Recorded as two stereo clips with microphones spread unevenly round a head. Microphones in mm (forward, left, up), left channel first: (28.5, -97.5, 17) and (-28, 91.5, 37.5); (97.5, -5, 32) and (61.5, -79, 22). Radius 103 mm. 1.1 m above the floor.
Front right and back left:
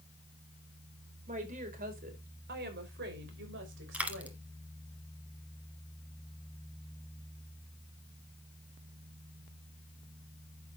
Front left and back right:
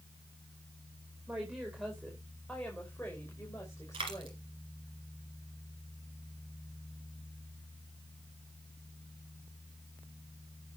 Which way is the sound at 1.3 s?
160° left.